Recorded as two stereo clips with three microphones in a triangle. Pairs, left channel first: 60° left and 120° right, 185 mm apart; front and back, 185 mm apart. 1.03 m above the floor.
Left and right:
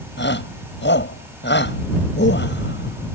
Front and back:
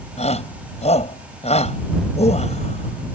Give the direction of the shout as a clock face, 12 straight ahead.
10 o'clock.